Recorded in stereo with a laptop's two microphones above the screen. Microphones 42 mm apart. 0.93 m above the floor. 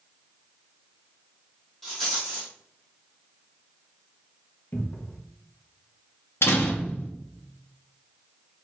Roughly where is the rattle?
Centre.